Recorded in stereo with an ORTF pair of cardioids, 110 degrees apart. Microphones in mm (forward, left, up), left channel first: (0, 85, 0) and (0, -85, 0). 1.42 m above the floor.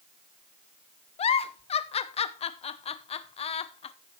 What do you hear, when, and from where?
1.2 s a giggle: 40° left, 0.9 m